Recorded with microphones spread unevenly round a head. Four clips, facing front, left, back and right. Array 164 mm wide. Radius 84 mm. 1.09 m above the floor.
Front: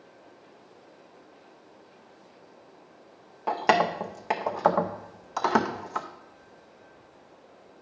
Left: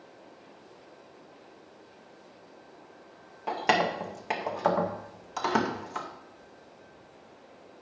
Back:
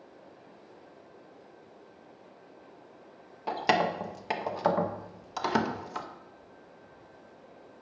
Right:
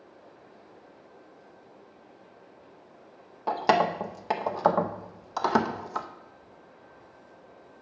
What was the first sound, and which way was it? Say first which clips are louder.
Keys jangling: right 3 dB, front 4 dB; 35° right.